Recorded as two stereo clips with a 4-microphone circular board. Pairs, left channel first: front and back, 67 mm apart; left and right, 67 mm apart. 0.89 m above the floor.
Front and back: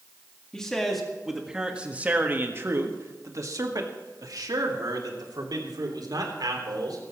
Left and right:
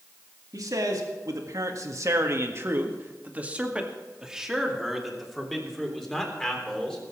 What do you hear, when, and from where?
0.5 s a man speaking: 80° right, 2.0 m; by 7.1 s 170° left, 4 m